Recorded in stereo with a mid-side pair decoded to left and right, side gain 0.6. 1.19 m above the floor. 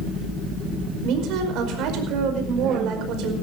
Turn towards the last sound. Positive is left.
turn(degrees=-65)